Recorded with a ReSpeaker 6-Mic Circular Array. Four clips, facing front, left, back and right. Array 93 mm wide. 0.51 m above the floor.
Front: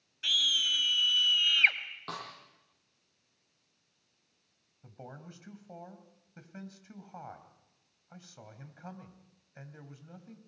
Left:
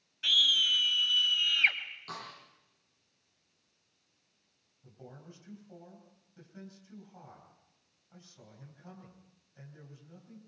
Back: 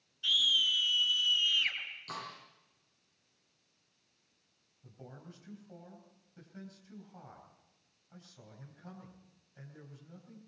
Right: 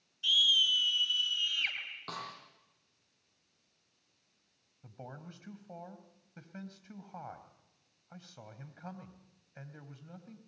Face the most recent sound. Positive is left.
turn(degrees=-50)